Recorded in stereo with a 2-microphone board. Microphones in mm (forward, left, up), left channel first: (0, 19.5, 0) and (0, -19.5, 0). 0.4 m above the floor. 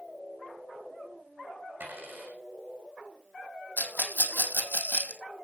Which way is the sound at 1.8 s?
60° right (ahead or behind).